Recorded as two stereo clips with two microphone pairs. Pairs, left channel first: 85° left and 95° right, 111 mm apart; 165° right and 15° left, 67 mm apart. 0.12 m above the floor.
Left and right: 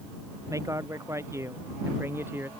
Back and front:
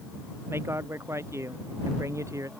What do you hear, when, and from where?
0.5 s a man speaking: 35° right; by 2.5 s 25° right